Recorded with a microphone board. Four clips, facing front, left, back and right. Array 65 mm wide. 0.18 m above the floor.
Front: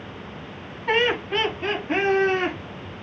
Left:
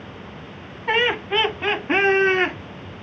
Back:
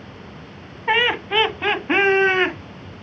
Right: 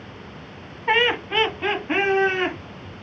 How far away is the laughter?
About 1.1 m.